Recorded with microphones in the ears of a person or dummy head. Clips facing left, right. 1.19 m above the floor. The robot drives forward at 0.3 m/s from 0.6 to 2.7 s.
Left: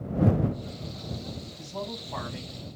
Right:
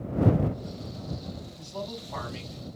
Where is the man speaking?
5° left (ahead or behind), 4 m.